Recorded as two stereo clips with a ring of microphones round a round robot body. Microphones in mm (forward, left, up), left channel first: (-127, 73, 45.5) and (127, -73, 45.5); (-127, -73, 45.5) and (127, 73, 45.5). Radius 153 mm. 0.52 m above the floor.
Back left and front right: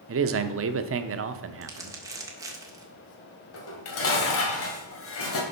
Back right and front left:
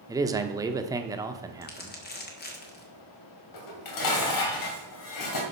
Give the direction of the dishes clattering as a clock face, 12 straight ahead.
6 o'clock.